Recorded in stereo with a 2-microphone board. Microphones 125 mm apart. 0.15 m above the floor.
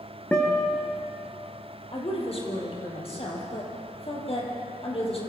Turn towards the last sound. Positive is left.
turn(degrees=50)  # may be behind; listen again after turning